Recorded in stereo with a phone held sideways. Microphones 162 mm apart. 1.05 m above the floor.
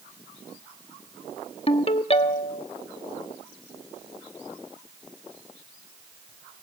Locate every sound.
1.7 s a ringtone: 35° left (ahead or behind), 1.0 m